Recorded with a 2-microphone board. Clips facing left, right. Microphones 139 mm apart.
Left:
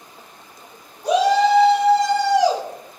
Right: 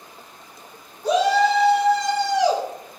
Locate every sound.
1.0 s a shout: 10° left (ahead or behind), 2 m; by 2.6 s 40° left (ahead or behind), 2.5 m